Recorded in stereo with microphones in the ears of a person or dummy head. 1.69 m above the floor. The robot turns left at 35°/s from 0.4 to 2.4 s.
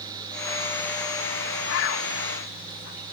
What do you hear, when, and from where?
1.7 s a bird: 65° left (ahead or behind), 1.6 m